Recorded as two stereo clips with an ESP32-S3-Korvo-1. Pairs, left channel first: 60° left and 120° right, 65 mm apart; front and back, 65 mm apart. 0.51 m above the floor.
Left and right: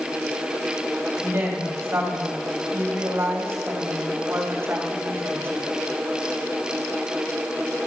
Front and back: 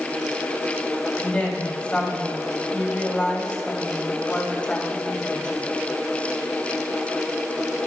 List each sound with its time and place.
1.2 s a woman speaking: 70° right, 3 m